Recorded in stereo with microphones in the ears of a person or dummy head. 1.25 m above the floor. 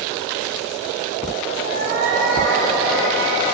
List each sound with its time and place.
1.6 s a cat meowing: 55° right (ahead or behind), 2 m; by 3.5 s 70° right (ahead or behind), 3 m